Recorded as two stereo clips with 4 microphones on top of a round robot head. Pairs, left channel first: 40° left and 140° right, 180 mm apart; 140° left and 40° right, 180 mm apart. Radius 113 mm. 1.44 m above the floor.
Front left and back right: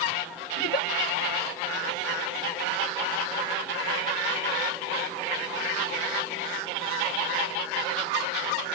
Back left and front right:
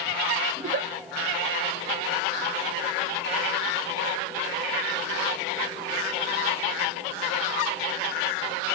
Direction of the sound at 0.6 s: 5° left.